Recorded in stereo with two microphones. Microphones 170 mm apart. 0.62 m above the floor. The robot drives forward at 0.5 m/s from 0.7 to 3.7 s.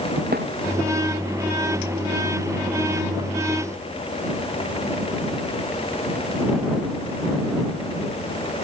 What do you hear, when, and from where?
0.3 s a thud: 70° right (ahead or behind)